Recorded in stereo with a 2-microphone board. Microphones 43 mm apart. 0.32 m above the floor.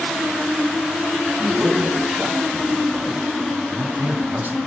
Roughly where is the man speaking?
Centre.